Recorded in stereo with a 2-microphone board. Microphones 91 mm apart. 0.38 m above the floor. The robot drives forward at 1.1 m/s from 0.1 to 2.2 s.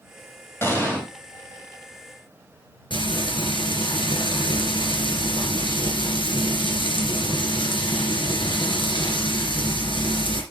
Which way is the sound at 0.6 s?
25° left (ahead or behind).